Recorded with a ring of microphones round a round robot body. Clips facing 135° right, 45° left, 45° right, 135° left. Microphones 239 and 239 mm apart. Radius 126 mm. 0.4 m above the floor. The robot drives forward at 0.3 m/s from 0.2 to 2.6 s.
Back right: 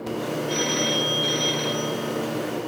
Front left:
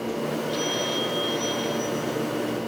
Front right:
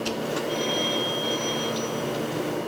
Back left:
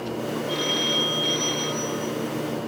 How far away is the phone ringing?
About 3.5 m.